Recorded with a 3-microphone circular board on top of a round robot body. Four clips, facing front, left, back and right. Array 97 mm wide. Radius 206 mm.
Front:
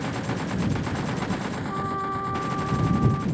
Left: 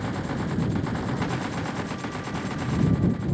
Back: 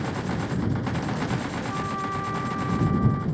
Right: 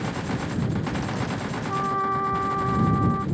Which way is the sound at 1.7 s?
80° right.